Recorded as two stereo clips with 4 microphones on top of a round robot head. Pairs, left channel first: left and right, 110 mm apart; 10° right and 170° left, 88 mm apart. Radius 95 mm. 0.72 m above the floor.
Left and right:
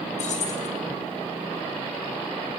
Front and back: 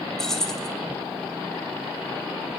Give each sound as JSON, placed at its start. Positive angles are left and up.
{"t": 0.2, "sound": "keys jangling", "azimuth_deg": 75, "distance_m": 2.5}